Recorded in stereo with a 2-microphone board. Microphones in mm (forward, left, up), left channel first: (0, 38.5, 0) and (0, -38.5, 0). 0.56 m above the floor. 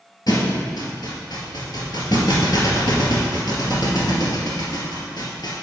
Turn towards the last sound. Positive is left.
turn(degrees=65)  # may be behind; listen again after turning